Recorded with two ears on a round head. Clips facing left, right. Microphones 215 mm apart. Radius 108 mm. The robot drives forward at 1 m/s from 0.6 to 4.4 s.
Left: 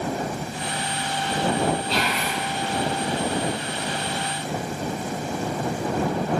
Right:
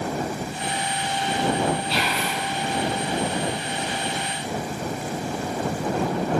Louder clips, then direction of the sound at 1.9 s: Left 1 dB; 5° right (ahead or behind).